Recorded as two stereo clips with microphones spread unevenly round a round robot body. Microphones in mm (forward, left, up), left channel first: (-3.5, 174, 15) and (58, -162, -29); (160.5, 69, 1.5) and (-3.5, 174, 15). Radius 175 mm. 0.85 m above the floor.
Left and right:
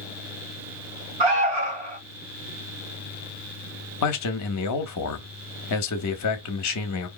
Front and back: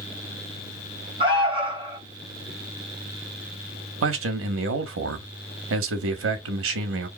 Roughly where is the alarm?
Right.